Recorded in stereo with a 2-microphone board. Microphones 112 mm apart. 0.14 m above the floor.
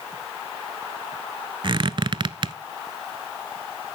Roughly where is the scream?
I don't hear a scream.